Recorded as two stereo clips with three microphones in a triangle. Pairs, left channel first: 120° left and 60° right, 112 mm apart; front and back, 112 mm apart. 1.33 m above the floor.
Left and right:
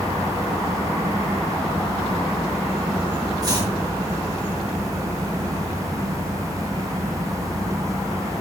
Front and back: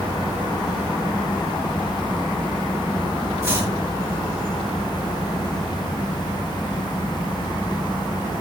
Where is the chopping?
115° right, 4.5 m.